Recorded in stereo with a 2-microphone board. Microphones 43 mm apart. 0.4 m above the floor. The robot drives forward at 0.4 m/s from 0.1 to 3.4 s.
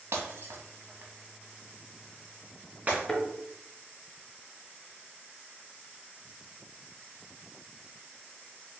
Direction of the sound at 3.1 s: 15° left (ahead or behind).